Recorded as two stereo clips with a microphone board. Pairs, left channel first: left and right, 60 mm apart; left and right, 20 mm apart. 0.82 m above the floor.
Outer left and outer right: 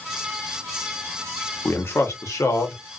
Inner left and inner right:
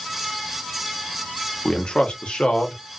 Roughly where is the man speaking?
Left.